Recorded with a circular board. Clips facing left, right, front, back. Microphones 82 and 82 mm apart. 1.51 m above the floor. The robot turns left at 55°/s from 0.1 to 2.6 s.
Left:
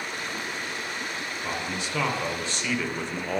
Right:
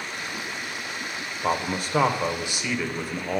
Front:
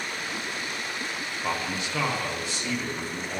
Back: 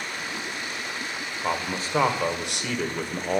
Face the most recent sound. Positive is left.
turn(degrees=-170)